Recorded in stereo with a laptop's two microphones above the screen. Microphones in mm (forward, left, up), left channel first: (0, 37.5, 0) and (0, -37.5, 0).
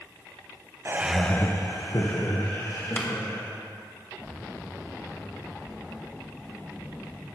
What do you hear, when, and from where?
0.8 s laughter: 35° right (ahead or behind), 0.6 m; by 3.5 s 75° left (ahead or behind), 2.5 m
3.0 s a clap: 30° left (ahead or behind), 1.0 m